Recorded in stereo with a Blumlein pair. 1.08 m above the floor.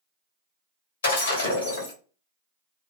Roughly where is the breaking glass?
Ahead left.